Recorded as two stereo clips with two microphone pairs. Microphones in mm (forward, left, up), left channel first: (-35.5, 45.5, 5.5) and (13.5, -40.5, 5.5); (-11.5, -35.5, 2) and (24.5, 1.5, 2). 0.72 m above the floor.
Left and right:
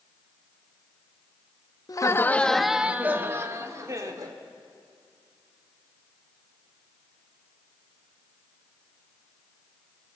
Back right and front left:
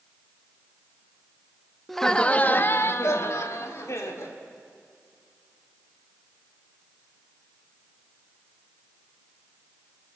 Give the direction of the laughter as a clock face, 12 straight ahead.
7 o'clock.